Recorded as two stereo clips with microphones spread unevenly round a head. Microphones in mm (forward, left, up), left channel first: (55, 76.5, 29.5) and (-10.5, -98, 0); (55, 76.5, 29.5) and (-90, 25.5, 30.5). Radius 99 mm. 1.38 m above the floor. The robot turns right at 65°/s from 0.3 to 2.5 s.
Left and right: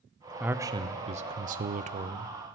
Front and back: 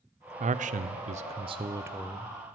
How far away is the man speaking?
About 0.5 m.